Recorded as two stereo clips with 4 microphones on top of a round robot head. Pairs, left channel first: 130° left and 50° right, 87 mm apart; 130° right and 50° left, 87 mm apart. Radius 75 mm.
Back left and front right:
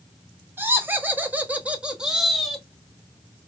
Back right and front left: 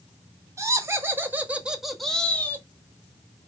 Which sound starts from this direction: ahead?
Laughter, at 0.6 s.